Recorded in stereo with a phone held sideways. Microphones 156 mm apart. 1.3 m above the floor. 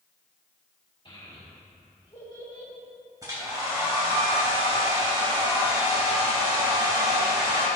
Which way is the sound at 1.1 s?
35° left (ahead or behind).